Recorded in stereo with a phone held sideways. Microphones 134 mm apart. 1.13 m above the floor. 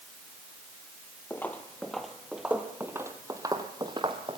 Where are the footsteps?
15° left (ahead or behind), 1.6 m; by 4.4 s 35° right (ahead or behind), 2 m.